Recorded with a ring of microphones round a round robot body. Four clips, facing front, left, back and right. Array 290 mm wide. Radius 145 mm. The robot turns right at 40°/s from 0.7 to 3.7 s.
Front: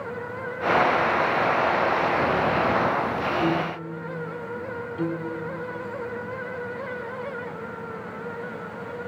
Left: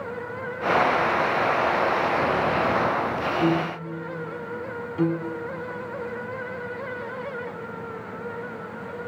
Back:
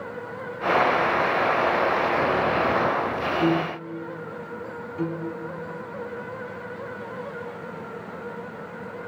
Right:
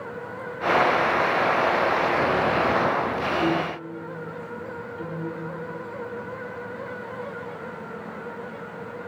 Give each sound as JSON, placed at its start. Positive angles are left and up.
{"t": 3.4, "sound": "a piano", "azimuth_deg": 130, "distance_m": 1.0}
{"t": 5.0, "sound": "a piano", "azimuth_deg": 100, "distance_m": 1.7}